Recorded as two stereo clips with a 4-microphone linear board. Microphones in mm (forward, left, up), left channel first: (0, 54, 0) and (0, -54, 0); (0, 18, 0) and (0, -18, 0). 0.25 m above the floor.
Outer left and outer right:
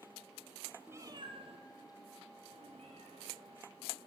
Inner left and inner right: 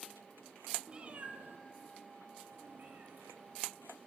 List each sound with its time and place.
0.9 s a cat meowing: 20° right (ahead or behind), 0.9 m; by 3.6 s 60° right (ahead or behind), 3 m